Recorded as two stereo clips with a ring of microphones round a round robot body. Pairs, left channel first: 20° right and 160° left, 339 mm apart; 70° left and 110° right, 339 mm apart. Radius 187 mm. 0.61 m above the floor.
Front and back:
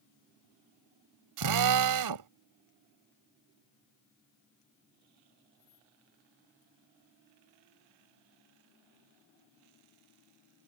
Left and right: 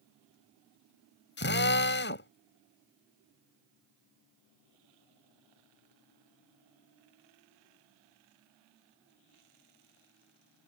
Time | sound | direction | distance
1.4 | a drill | 125° left | ?